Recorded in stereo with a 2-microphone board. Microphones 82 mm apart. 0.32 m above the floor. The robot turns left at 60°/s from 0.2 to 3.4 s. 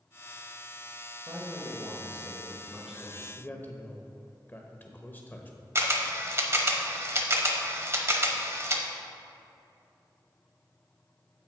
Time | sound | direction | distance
1.3 | a man speaking | 70° right | 1.7 m
3.4 | a man speaking | 25° left (ahead or behind) | 0.9 m
5.8 | a camera shutter | 35° right (ahead or behind) | 0.8 m